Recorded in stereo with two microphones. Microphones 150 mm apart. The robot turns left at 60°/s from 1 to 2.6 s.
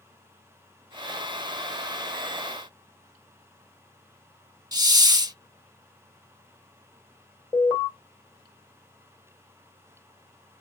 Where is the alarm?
20° left (ahead or behind), 1.4 m.